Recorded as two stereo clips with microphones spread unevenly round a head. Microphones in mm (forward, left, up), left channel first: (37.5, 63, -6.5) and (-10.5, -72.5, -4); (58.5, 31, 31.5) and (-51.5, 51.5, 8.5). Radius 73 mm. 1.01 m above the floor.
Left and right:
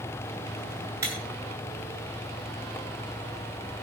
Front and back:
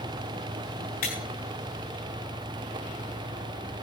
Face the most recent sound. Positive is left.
turn(degrees=-40)